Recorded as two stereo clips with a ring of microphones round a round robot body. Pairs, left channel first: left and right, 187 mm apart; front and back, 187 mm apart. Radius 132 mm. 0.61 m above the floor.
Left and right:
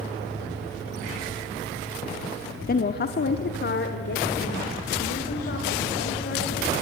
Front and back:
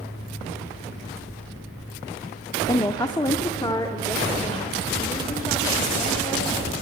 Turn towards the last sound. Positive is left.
turn(degrees=70)